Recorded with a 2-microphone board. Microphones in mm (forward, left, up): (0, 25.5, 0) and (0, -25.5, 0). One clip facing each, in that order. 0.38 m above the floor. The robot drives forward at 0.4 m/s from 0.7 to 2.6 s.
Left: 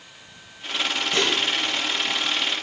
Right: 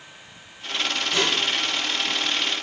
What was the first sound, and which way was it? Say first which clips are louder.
Dishes clattering: left 1 dB; 30° left (ahead or behind).